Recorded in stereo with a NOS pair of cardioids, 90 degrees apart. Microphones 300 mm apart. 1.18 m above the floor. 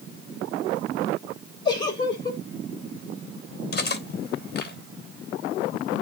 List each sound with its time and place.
1.6 s a giggle: 15° left, 4 m
3.7 s cutlery clinking: 35° left, 3 m